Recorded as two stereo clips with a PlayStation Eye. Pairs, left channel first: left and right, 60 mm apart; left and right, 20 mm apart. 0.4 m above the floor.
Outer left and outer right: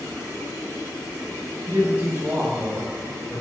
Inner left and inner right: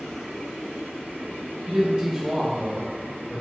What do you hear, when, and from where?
1.7 s a man speaking: 35° right (ahead or behind), 1.0 m; by 3.4 s centre (ahead or behind), 0.9 m